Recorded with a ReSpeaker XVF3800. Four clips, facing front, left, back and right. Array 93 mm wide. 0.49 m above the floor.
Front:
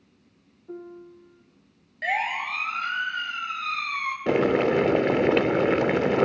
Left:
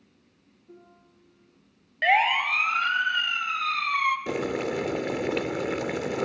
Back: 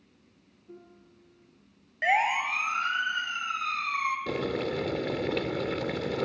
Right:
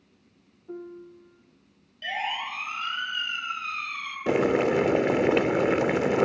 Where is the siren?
110° left, 3 m; by 4.2 s 100° left, 5 m.